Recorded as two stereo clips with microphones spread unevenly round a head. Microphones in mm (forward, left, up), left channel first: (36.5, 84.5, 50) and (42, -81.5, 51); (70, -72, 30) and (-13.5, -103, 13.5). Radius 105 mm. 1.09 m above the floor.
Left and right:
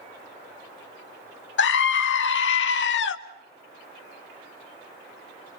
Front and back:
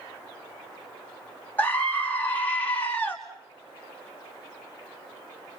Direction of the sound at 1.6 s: 100° left.